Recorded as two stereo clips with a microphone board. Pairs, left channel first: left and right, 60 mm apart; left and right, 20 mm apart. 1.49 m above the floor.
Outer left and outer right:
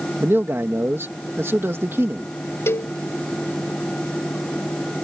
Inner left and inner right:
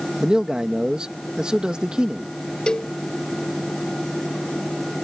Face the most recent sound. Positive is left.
turn(degrees=45)  # may be behind; listen again after turning